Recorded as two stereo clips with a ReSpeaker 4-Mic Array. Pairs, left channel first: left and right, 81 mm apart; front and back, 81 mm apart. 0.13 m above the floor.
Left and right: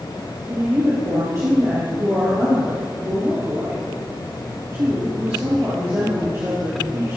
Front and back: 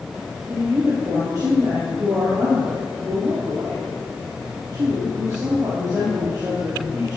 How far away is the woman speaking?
About 3 m.